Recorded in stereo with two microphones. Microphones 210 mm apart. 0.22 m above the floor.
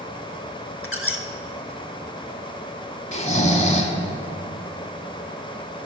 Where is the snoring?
35° left (ahead or behind), 0.7 m.